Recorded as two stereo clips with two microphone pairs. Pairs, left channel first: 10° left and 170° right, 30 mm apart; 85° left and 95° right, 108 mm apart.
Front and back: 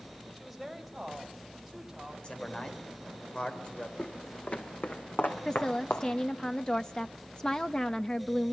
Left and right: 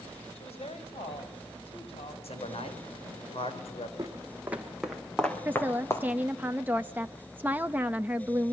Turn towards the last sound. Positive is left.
turn(degrees=-35)